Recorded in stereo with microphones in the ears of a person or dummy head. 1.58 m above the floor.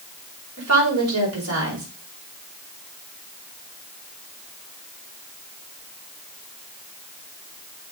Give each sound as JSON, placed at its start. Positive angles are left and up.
{"t": 0.6, "sound": "a woman speaking", "side_deg": -90, "distance_m": 5.0}